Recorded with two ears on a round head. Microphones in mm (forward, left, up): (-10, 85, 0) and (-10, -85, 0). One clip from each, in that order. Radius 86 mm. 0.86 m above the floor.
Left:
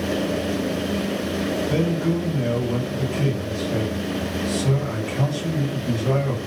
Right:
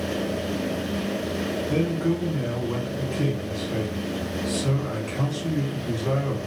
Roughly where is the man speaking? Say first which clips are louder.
Right 1 dB; right.